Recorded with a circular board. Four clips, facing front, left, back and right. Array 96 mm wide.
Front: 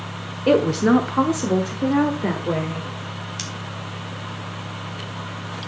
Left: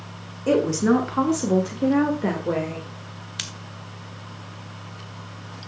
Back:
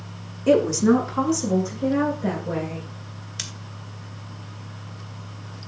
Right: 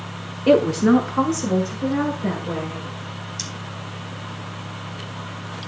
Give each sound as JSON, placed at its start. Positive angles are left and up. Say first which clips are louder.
{"t": 0.5, "sound": "a woman speaking", "louder": "right 4 dB, front 1 dB", "azimuth_deg": -50, "distance_m": 1.1}
{"t": 3.4, "sound": "scissors", "louder": "right 4 dB, front 7 dB", "azimuth_deg": 85, "distance_m": 1.3}